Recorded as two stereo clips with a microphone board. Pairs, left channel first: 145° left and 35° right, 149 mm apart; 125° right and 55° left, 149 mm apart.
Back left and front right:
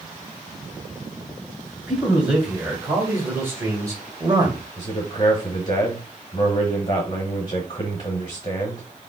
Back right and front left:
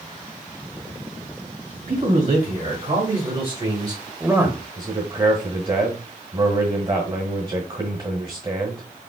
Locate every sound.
1.9 s a man speaking: 50° left, 2 m; by 4.7 s 15° right, 1.3 m
4.8 s a man speaking: 100° left, 1.3 m